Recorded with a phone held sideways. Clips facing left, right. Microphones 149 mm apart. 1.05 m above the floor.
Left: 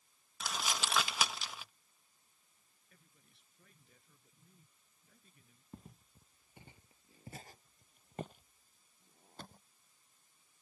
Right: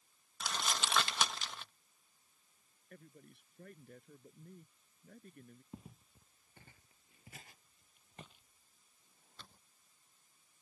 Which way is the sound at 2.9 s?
55° right (ahead or behind).